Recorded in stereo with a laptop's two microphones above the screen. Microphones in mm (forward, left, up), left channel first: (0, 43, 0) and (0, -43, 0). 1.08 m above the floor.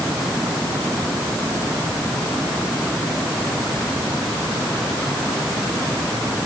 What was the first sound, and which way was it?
Only background noise.